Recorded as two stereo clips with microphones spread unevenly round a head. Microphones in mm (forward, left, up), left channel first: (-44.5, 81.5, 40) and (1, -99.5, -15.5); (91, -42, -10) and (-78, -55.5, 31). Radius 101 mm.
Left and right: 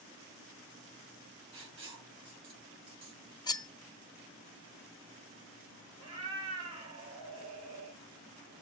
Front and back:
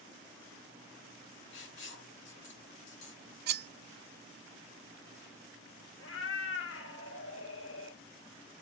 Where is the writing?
5° right, 4.5 m.